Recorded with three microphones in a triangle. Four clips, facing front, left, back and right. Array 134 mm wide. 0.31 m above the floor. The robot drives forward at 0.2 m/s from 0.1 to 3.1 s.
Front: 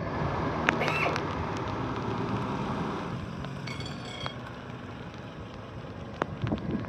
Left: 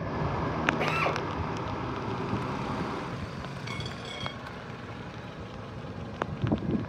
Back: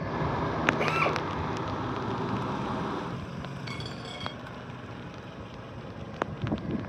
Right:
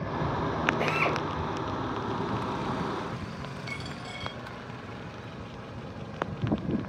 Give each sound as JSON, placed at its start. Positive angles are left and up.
{"t": 0.8, "sound": "a drill", "azimuth_deg": 180, "distance_m": 4.5}
{"t": 3.7, "sound": "a dropped coin", "azimuth_deg": 145, "distance_m": 4.5}